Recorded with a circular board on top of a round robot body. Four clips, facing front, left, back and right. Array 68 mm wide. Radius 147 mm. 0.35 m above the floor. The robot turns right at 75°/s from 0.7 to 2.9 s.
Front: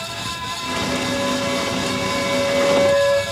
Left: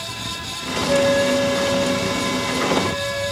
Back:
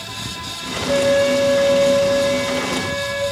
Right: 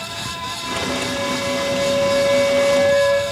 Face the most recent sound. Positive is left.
turn(degrees=-55)